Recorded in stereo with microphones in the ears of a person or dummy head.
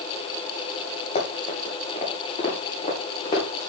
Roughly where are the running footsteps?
Left.